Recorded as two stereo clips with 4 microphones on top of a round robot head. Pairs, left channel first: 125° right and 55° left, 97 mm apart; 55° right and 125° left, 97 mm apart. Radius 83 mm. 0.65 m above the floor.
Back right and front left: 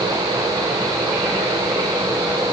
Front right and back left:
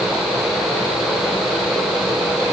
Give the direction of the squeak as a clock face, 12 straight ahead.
I don't hear a squeak.